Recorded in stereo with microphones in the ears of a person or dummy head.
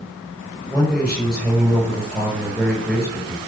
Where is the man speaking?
5° right (ahead or behind), 8.5 m.